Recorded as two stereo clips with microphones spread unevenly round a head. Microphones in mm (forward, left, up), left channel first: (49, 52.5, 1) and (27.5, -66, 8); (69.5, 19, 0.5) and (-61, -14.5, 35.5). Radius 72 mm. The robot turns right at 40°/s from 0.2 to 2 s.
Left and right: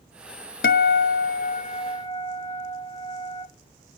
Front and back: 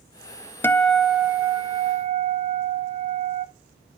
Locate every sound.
0.6 s a guitar: 90° left, 0.6 m; by 3.5 s 145° left, 0.6 m